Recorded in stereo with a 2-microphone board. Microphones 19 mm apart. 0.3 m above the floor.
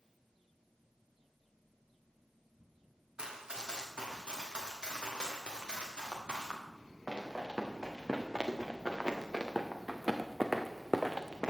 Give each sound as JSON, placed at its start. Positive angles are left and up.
{"t": 3.2, "sound": "running footsteps", "side_deg": -55, "distance_m": 6.0}